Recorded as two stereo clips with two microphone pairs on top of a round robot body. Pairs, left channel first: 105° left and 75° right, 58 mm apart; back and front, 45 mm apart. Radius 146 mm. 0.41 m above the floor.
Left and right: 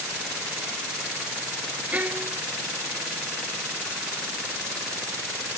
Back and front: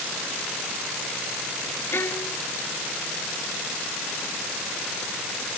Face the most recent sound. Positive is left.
turn(degrees=-140)